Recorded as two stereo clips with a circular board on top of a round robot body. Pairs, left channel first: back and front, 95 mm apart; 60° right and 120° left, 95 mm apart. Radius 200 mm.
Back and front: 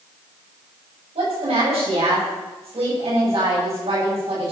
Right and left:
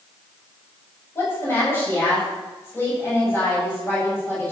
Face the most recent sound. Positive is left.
turn(degrees=10)